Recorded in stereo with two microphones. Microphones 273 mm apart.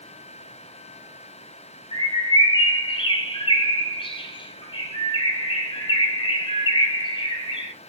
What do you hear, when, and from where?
1.9 s a bird: 20° left (ahead or behind), 0.6 m